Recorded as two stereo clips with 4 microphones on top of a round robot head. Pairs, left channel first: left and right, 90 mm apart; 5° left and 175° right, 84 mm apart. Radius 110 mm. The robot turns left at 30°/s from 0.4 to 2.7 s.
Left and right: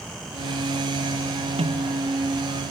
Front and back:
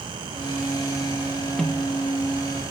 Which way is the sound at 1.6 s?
85° right.